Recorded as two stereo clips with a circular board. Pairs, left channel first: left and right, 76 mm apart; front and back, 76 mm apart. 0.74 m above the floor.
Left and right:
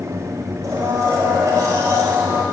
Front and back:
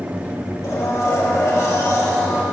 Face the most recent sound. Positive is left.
turn(degrees=-45)